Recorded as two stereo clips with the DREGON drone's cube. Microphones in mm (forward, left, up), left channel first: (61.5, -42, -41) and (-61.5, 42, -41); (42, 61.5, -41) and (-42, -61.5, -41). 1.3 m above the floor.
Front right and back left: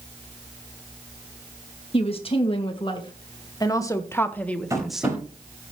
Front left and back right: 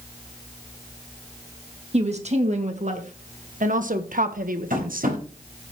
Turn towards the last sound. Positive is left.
turn(degrees=-145)